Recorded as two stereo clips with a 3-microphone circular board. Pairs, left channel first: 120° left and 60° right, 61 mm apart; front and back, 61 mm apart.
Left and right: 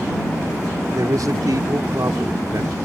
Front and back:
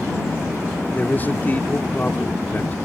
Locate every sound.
0.9 s a man speaking: 55° right